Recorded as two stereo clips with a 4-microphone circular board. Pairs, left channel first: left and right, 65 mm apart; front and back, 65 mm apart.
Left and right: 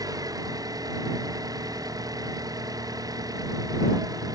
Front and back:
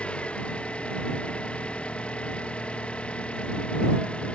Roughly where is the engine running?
Right.